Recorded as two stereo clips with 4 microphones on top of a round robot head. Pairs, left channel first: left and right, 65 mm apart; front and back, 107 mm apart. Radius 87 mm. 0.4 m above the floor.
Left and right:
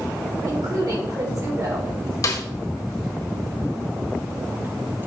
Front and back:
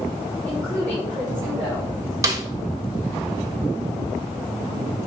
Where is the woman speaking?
75° right, 4 m; by 2.1 s 80° right, 2 m.